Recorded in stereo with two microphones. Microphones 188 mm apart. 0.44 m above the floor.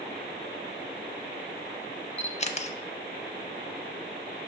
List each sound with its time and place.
2.2 s a camera shutter: 35° left (ahead or behind), 0.5 m